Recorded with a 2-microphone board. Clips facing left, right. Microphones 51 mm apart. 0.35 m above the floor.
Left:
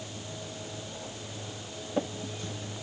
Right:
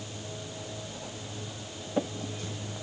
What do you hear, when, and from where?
Only background noise.